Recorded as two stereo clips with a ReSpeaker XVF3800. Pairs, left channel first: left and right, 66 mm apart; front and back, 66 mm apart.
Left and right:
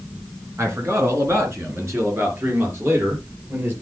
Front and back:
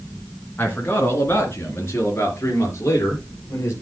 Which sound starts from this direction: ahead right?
A man speaking, at 0.6 s.